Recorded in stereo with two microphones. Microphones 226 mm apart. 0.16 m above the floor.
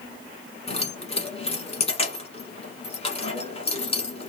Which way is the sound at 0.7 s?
25° left (ahead or behind).